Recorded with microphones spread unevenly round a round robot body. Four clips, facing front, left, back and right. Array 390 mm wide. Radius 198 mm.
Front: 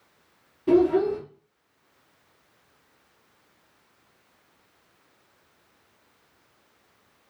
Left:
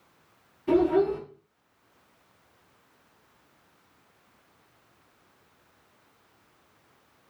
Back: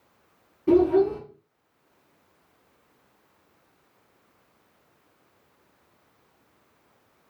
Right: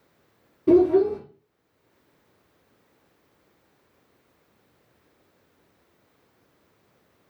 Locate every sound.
0.7 s a child speaking: 85° right, 1.9 m